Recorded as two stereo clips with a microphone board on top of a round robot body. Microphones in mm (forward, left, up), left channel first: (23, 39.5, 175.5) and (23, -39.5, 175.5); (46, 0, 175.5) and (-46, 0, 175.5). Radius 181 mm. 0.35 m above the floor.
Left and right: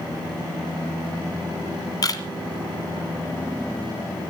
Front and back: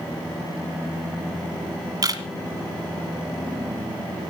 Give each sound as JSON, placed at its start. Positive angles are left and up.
{"t": 2.0, "sound": "a camera shutter", "azimuth_deg": 130, "distance_m": 1.6}